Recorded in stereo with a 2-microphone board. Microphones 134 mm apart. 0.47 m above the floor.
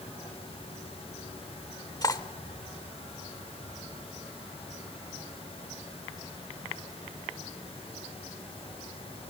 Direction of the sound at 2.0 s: 30° left (ahead or behind).